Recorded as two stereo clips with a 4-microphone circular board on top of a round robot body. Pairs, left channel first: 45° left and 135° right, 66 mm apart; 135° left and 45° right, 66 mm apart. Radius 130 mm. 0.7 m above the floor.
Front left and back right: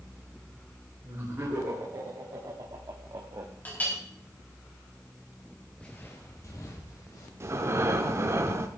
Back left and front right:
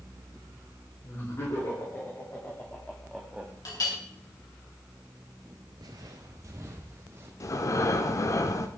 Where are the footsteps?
30° right, 0.8 m; by 7.3 s 10° left, 2.5 m.